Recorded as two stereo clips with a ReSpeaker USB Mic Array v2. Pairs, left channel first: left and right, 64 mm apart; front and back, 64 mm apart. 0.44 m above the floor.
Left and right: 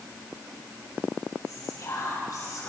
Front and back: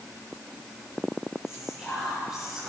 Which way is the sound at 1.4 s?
95° left.